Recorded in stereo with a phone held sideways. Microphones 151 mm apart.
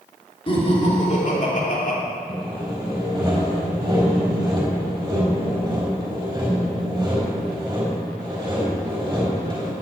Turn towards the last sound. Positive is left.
turn(degrees=-25)  # may be behind; listen again after turning